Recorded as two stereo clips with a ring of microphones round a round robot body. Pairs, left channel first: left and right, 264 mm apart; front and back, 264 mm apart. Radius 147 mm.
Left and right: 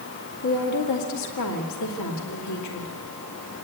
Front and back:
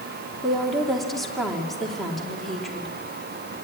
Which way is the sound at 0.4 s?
90° left.